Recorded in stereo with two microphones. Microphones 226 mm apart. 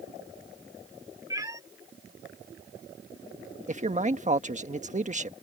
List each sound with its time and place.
1.3 s a cat meowing: 15° right (ahead or behind)
3.7 s a man speaking: 35° right (ahead or behind)